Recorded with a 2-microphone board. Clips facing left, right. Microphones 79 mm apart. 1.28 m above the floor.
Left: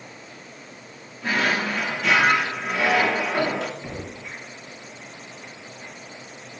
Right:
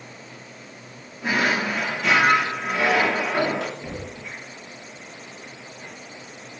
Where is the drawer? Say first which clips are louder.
Right 1 dB; 10° right (ahead or behind), 1.4 m.